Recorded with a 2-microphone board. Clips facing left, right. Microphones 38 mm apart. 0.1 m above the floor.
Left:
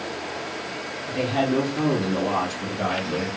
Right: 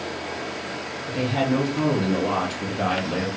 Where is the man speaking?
5° left (ahead or behind), 1.3 m; by 3.3 s 35° right (ahead or behind), 1.5 m.